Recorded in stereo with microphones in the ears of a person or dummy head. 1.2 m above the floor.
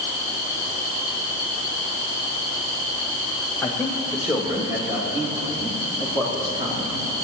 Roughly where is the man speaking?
Centre.